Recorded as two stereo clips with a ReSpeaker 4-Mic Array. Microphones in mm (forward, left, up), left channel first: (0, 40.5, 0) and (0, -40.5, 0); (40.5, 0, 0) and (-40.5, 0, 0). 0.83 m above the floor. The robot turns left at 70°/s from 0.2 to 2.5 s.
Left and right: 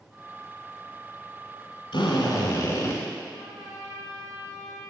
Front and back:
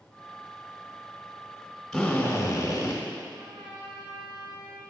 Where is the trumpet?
170° right, 2.5 m.